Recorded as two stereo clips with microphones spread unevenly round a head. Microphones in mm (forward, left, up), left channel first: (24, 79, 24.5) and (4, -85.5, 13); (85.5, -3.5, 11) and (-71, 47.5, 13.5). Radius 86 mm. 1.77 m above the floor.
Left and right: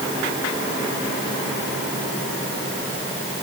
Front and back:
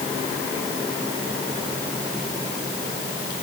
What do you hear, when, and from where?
Only background noise.